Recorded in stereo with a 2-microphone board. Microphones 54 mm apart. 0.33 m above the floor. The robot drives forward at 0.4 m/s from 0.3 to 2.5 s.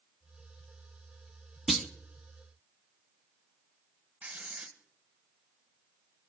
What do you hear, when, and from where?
1.7 s a clunk: centre (ahead or behind), 0.7 m
4.2 s writing: 25° right (ahead or behind), 1.1 m